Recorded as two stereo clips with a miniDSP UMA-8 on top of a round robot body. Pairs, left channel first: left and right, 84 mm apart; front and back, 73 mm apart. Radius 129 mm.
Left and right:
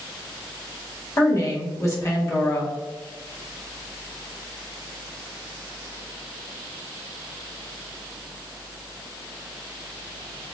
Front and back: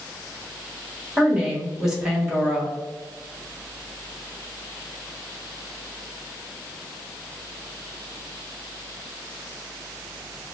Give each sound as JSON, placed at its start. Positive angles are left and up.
{"t": 1.2, "sound": "a woman speaking", "azimuth_deg": 105, "distance_m": 1.4}